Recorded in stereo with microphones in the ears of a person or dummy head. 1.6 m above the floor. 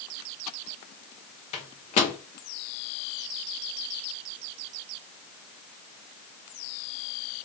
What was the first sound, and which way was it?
A microwave, 35° left (ahead or behind).